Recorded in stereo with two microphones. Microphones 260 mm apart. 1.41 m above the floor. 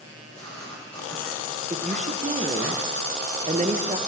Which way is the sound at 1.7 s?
30° right (ahead or behind).